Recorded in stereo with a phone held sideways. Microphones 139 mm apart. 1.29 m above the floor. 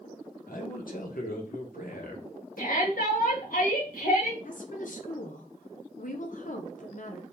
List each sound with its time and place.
0.5 s a man speaking: 80° left, 1.1 m
2.6 s a shout: 90° left, 1.6 m
4.5 s a woman speaking: 65° left (ahead or behind), 0.7 m